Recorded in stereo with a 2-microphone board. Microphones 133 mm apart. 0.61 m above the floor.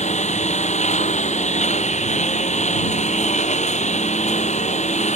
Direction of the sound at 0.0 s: 60° left (ahead or behind).